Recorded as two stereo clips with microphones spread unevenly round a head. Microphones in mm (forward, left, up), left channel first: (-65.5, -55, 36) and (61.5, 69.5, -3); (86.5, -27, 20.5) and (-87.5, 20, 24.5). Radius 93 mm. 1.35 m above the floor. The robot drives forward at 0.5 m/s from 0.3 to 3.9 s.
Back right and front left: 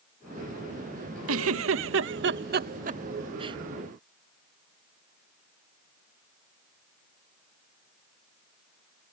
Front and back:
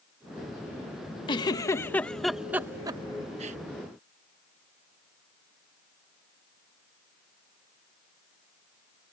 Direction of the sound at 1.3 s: 50° left.